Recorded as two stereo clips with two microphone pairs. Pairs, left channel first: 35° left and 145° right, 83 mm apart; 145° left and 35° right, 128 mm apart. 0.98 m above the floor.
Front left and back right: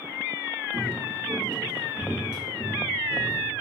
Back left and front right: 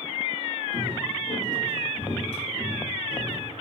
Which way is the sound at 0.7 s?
70° left.